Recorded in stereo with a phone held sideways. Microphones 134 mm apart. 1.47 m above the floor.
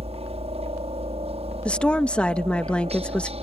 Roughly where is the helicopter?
Right.